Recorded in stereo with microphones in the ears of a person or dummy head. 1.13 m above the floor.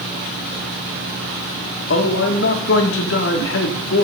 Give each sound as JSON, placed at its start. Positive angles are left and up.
{"t": 1.9, "sound": "a man speaking", "side_deg": 60, "distance_m": 1.6}